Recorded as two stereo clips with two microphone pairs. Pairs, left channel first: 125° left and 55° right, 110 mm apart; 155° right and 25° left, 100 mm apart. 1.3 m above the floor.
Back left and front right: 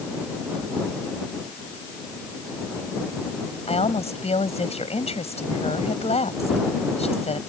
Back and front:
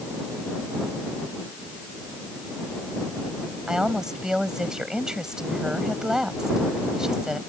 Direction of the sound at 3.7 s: 110° left.